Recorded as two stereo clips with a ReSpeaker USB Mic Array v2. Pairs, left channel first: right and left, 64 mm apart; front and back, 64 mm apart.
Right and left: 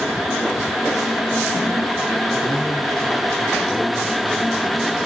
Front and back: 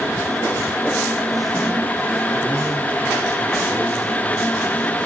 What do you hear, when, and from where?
2.3 s a man speaking: 65° left, 6.5 m; by 5.1 s 45° left, 6.5 m